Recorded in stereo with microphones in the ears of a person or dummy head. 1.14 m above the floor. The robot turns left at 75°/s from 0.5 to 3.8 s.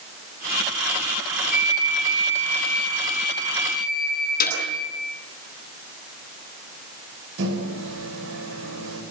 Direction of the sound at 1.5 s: 10° right.